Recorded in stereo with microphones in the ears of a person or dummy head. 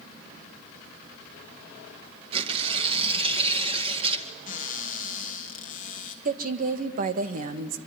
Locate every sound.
2.3 s tearing paper: 35° right (ahead or behind), 2 m
4.5 s a cupboard door: 45° left (ahead or behind), 1.8 m
6.2 s a woman speaking: 50° right (ahead or behind), 1.6 m